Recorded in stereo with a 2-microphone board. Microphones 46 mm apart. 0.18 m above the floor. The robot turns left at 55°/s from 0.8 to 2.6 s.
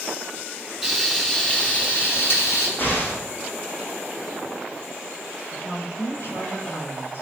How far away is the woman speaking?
About 5 m.